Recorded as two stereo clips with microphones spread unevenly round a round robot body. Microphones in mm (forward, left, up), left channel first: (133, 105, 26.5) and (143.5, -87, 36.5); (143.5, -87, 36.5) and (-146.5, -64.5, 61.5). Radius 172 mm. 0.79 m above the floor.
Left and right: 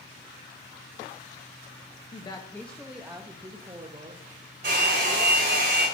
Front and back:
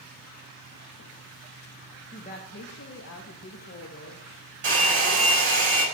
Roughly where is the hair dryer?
Behind right.